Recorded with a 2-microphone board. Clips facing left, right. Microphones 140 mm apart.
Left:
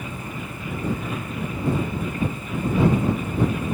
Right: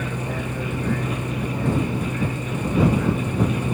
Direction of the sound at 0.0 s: 80° right.